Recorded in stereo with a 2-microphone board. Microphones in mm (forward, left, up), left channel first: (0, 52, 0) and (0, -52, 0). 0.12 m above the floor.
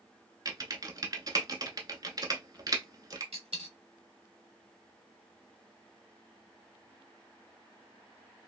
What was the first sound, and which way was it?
Typing on a keyboard, 40° right (ahead or behind).